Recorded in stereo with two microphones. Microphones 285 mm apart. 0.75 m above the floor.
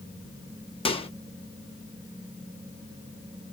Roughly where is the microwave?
Centre.